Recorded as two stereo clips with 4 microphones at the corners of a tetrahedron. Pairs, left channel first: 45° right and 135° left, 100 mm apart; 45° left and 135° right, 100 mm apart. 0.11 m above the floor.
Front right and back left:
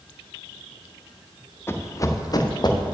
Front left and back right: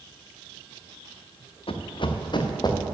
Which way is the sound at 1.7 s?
20° left.